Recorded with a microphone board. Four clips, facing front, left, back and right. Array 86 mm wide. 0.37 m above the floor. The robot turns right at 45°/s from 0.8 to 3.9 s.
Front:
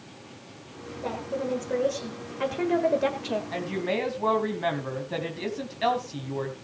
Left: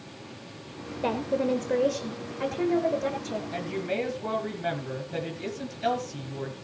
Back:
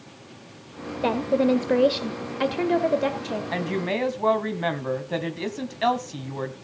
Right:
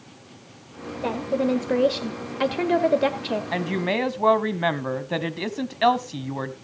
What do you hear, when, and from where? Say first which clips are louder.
1.0 s a woman speaking: right 3 dB, back 9 dB; 175° left, 1.4 m; by 3.4 s 75° right, 1.4 m
3.5 s a woman speaking: right 5 dB, back 5 dB; 115° right, 2.5 m; by 6.5 s 100° right, 2.5 m